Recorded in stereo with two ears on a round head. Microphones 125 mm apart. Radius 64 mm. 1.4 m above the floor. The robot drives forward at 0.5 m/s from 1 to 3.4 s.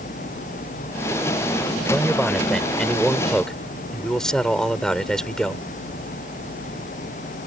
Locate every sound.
1.9 s a man speaking: 5° left (ahead or behind)